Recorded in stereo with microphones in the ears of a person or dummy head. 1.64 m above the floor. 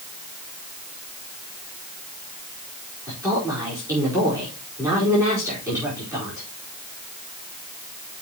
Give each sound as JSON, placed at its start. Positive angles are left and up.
{"t": 3.1, "sound": "a woman speaking", "side_deg": -20, "distance_m": 5.0}